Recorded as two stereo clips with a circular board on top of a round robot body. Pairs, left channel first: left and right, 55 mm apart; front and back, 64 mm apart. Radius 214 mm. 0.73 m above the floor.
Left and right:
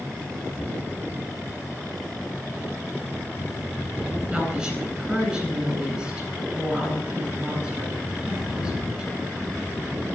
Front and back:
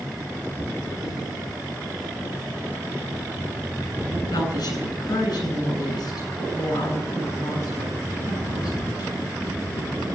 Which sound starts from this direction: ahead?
A woman speaking, at 4.3 s.